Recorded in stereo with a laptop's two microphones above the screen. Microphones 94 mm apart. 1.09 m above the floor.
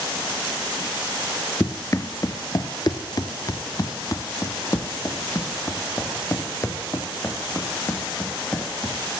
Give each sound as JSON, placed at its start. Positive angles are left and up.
{"t": 1.6, "sound": "running footsteps", "side_deg": 30, "distance_m": 1.3}